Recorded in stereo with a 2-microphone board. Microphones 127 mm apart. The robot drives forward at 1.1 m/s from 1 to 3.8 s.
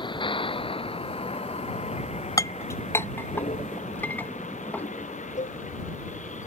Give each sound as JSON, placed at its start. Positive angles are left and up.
{"t": 0.0, "sound": "a vehicle", "side_deg": 40}
{"t": 2.4, "sound": "a clink", "side_deg": 25}
{"t": 5.4, "sound": "a cowbell", "side_deg": 70}